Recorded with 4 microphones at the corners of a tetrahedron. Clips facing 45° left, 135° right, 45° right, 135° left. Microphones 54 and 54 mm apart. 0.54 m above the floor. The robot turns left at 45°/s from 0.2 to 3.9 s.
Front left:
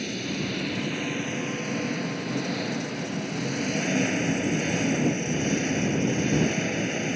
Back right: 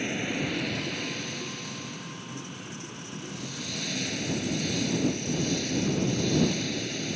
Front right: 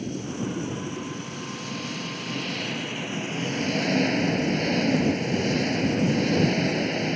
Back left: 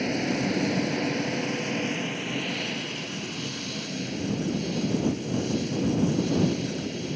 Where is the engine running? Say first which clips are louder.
Even, back left 4 dB; 155° left; by 7.2 s 10° right.